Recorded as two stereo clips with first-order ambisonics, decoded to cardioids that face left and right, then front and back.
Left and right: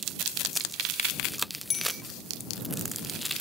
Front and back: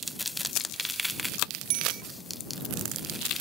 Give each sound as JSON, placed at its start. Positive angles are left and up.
{"t": 1.7, "sound": "a bicycle bell", "azimuth_deg": 155}